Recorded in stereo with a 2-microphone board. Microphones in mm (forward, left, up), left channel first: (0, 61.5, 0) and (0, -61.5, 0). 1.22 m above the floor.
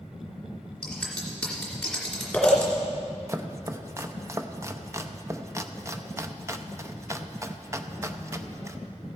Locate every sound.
0.8 s scissors: 5° left (ahead or behind), 2.5 m
3.3 s chopping: 25° right (ahead or behind), 0.5 m